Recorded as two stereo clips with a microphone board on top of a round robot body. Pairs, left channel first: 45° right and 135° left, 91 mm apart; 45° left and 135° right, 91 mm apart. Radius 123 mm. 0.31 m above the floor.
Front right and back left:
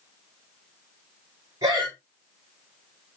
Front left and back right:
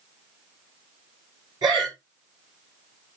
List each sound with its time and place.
1.6 s breathing: 175° right, 5.5 m